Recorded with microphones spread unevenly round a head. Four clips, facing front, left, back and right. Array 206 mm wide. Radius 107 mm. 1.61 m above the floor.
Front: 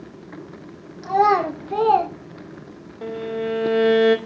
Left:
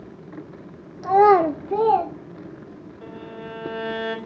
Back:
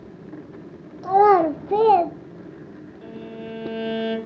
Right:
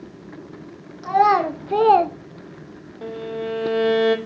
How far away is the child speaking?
About 0.8 m.